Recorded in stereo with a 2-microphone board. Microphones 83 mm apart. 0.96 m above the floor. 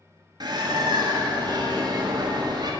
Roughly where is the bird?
Right.